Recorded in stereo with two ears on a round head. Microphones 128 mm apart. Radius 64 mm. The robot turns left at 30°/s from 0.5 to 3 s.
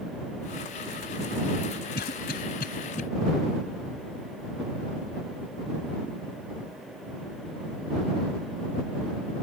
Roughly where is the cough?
Left.